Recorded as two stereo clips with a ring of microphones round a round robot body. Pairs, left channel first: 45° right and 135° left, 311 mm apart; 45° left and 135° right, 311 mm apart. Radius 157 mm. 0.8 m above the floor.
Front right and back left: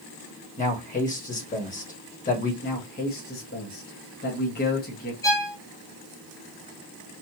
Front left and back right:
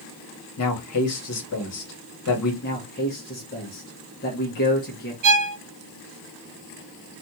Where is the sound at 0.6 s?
15° left, 1.8 m.